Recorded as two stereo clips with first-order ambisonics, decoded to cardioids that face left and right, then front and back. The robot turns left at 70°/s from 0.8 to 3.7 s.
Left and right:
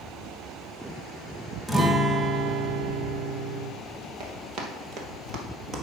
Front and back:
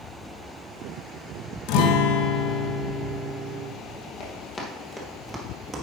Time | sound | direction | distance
1.7 | a guitar | 10° left | 0.8 m
4.2 | running footsteps | 55° right | 2.0 m